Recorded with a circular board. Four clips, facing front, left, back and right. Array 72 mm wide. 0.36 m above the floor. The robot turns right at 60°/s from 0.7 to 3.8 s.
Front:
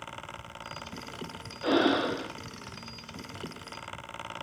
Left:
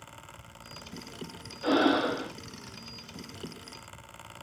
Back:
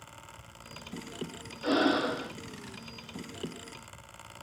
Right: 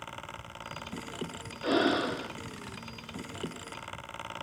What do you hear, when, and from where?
1.6 s breathing: 5° left, 1.3 m; by 2.3 s 50° left, 1.3 m